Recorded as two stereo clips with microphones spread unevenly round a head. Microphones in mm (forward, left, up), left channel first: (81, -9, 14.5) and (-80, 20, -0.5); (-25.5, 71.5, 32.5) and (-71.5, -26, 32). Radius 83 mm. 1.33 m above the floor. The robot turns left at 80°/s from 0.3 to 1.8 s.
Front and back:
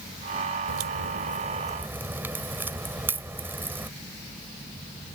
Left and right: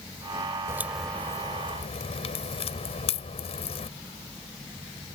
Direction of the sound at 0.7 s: Straight behind.